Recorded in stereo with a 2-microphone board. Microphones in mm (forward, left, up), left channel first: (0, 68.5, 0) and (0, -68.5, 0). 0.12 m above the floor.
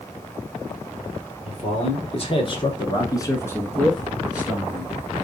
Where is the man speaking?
55° left (ahead or behind), 1.8 m; by 4.9 s 25° right (ahead or behind), 1.1 m.